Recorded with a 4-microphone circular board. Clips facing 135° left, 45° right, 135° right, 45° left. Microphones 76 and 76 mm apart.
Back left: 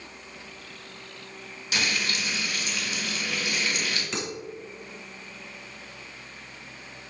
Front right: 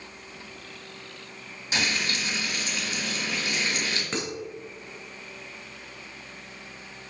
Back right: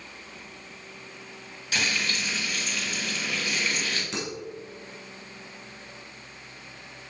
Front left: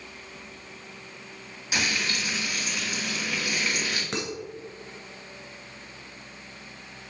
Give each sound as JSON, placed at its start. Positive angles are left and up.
{"t": 1.7, "sound": "frying", "azimuth_deg": -20, "distance_m": 1.6}
{"t": 4.1, "sound": "dishes clattering", "azimuth_deg": 5, "distance_m": 2.5}